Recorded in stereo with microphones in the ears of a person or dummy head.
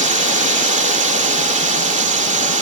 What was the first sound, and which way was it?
A drone, 35° right (ahead or behind).